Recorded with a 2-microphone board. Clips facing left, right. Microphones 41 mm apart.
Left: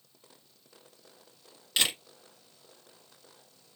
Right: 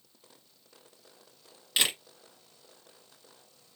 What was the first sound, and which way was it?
A camera shutter, 5° right (ahead or behind).